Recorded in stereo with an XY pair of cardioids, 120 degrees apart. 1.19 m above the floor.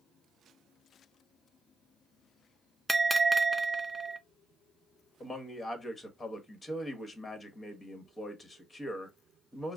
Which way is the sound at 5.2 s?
20° left.